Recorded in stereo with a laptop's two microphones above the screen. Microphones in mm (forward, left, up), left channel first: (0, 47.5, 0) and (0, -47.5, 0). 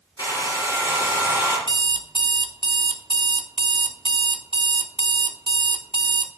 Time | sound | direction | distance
0.2 | a hair dryer | 45° left (ahead or behind) | 3.5 m
1.7 | an alarm clock | 60° right (ahead or behind) | 0.6 m